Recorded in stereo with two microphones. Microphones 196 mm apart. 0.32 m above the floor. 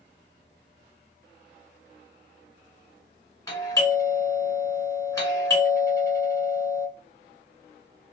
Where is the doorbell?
15° left (ahead or behind), 1.4 m.